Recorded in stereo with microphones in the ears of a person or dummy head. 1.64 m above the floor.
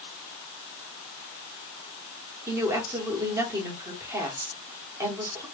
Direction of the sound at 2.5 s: 15° right (ahead or behind).